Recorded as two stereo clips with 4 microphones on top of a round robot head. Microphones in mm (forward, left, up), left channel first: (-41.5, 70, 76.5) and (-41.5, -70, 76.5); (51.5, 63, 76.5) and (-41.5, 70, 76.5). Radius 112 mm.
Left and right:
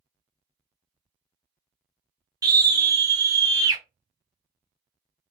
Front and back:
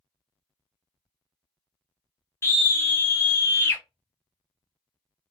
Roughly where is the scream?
Ahead right.